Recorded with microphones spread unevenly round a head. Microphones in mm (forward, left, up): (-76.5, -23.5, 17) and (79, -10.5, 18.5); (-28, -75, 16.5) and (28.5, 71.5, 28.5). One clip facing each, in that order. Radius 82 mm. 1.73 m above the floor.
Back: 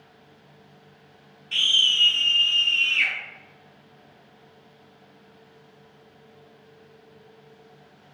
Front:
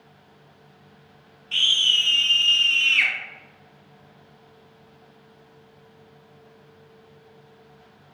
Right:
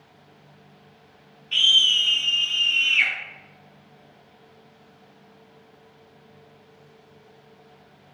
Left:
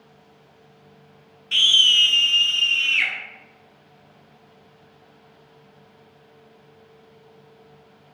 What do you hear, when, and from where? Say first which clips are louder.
1.5 s a scream: front 1 dB, left 2 dB; 105° left, 0.6 m; by 3.1 s 15° left, 0.7 m